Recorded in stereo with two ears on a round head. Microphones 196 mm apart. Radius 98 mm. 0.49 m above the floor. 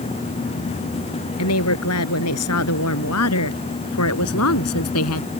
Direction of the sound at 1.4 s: 80° left.